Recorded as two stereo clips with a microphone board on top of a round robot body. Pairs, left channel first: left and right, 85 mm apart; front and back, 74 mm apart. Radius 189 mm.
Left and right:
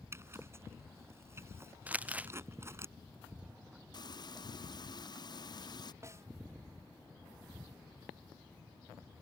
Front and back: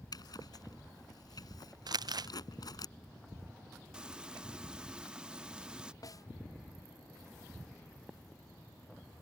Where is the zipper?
30° right.